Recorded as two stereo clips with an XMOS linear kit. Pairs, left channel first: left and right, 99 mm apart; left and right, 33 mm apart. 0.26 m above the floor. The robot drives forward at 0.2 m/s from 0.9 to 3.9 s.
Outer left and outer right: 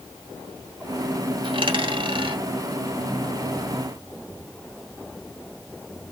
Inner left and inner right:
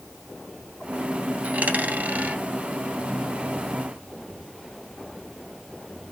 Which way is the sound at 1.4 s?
60° right (ahead or behind).